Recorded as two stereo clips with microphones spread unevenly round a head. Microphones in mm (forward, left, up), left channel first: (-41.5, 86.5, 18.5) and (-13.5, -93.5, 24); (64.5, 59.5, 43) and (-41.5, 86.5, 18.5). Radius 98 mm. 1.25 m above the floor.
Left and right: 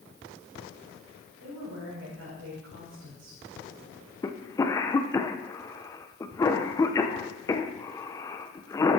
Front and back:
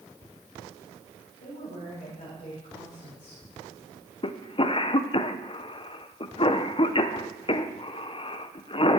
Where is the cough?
30° left, 1.0 m.